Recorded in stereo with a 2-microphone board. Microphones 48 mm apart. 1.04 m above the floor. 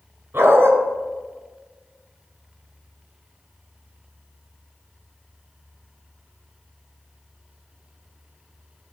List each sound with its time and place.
0.3 s a dog barking: 55° right (ahead or behind), 2 m